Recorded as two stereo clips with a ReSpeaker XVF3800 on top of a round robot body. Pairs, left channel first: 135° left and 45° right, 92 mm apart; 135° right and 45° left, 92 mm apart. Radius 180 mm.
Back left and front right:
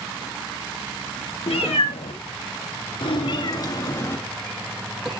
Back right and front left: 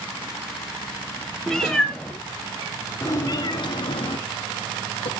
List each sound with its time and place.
1.5 s a cat meowing: 135° left, 2.5 m; by 5.1 s 130° right, 2 m